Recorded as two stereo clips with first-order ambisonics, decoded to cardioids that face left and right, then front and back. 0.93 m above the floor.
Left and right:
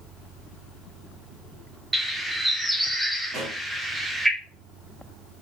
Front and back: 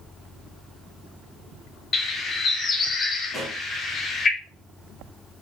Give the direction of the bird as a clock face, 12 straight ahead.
1 o'clock.